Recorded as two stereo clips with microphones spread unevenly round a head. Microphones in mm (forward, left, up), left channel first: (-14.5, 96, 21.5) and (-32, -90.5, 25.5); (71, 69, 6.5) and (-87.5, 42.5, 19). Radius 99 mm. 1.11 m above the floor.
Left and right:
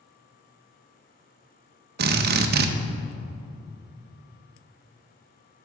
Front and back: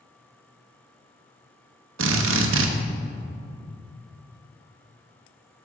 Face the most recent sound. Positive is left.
turn(degrees=-135)